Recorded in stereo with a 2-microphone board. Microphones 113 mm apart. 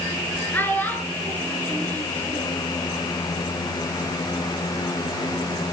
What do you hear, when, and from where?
0.5 s a child speaking: 15° left (ahead or behind), 7 m